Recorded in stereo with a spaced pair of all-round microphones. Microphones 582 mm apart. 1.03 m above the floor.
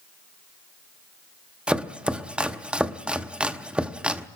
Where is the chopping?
Centre (ahead or behind), 0.8 m.